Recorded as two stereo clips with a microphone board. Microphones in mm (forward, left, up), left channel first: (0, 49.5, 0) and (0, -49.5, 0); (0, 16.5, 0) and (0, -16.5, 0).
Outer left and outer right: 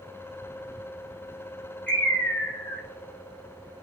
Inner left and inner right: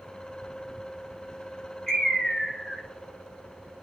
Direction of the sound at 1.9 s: 15° left (ahead or behind).